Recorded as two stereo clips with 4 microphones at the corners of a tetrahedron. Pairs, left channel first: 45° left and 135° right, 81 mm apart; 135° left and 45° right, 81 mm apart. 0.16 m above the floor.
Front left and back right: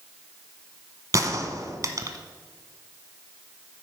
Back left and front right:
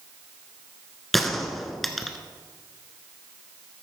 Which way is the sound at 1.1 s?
135° right.